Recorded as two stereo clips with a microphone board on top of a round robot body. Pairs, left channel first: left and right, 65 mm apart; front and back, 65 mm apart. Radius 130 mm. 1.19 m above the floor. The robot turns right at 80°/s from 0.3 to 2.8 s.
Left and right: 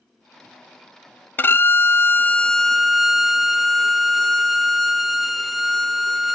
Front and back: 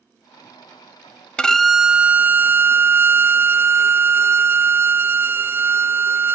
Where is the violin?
65° left, 0.6 m; by 6.3 s straight behind, 0.6 m.